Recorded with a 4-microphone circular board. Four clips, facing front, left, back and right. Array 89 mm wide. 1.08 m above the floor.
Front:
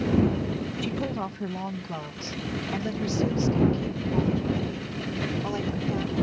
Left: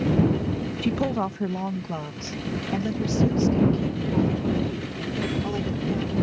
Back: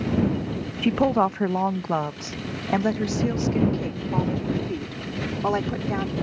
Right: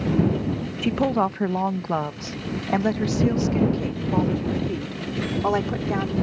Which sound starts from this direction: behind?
A woman speaking, at 0.8 s.